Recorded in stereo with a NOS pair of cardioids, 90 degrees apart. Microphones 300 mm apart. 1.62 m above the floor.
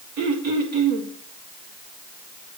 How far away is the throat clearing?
About 2 m.